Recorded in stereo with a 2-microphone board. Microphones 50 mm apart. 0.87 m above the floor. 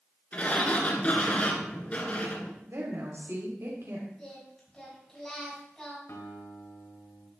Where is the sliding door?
30° left (ahead or behind), 2.0 m.